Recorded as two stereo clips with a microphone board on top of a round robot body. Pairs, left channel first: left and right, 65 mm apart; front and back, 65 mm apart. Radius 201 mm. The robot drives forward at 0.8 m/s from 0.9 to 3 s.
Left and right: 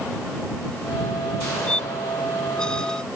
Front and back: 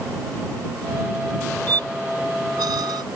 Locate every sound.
1.7 s a squeak: 165° left; by 3.0 s 170° left